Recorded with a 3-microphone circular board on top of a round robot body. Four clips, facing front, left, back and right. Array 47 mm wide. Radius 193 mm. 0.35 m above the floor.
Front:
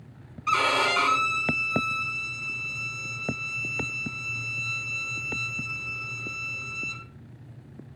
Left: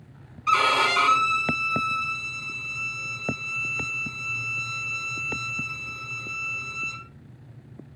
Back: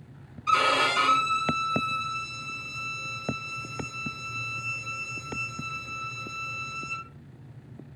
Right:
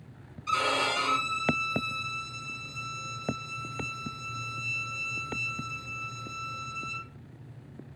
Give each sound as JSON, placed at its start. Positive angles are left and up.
{"t": 0.5, "sound": "a violin", "azimuth_deg": 60, "distance_m": 6.5}